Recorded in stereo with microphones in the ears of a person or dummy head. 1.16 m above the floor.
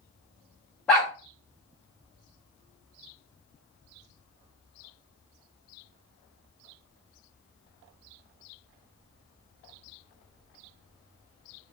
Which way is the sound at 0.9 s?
10° left (ahead or behind).